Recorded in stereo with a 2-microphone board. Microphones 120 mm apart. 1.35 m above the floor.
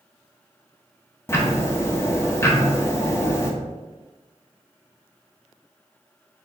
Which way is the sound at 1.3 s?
20° left (ahead or behind).